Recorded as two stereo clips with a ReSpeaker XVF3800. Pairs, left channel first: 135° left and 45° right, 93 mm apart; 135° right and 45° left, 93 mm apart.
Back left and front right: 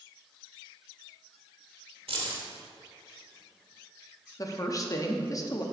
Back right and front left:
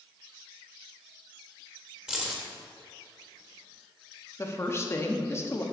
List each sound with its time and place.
2.1 s keys jangling: 35° right, 1.6 m
4.4 s a woman speaking: 170° left, 1.0 m